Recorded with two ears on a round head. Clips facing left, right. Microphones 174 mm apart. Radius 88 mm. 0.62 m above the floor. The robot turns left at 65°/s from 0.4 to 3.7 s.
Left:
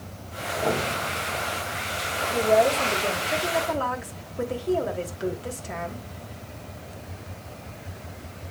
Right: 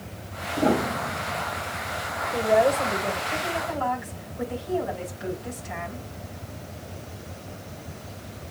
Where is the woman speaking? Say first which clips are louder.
Even; 155° right, 3 m; by 6.0 s 115° left, 3 m.